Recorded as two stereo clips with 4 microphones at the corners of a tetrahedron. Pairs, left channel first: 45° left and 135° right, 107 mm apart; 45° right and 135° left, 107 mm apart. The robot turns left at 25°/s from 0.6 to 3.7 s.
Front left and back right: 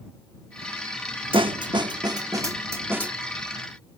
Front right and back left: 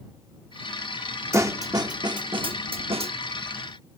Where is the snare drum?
165° right; by 3.1 s 150° left.